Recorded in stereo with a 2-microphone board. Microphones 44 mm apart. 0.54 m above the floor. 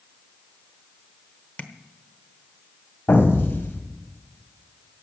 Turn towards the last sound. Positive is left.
turn(degrees=55)  # may be behind; listen again after turning